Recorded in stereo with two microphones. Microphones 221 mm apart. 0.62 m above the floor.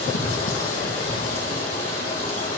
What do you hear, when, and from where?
0.0 s running water: 80° left, 2 m